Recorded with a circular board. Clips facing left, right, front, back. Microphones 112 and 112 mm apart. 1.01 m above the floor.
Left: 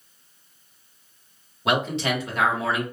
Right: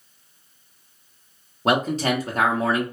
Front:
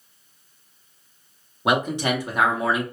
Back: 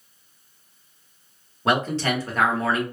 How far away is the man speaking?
About 0.9 m.